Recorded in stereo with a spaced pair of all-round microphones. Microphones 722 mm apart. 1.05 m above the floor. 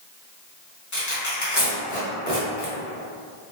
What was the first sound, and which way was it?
Tearing paper, 25° left (ahead or behind).